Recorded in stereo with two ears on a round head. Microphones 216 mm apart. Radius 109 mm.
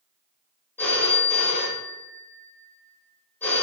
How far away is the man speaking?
I don't hear a man speaking.